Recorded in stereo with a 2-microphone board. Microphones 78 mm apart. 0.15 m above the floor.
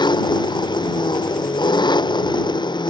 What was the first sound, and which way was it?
An engine running, 75° left (ahead or behind).